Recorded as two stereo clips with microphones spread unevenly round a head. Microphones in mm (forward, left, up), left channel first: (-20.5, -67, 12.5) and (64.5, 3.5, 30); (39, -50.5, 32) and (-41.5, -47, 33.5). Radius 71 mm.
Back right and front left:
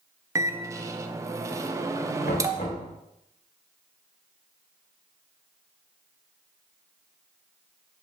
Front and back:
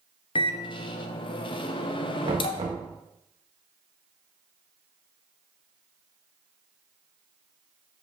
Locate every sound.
0.3 s a microwave: 15° right, 0.7 m
2.2 s knocking: straight behind, 1.6 m